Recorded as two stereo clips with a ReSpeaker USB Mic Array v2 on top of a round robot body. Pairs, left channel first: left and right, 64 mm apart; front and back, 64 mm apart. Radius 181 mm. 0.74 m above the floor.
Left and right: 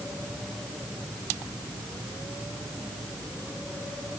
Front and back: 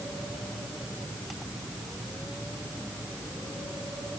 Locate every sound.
Only background noise.